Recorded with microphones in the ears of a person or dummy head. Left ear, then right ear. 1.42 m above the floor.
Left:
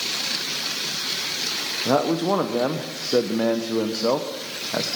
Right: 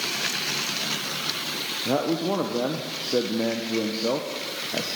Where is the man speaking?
35° left (ahead or behind), 0.9 m.